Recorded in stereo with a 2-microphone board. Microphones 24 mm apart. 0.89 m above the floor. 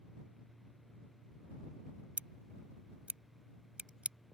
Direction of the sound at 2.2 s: 65° right (ahead or behind).